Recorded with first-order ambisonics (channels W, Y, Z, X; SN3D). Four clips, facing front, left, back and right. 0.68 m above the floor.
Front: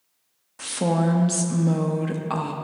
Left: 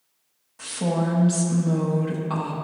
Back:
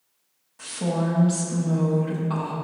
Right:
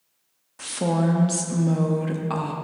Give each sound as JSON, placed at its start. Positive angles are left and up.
{"t": 0.6, "sound": "a woman speaking", "azimuth_deg": -25, "distance_m": 0.6}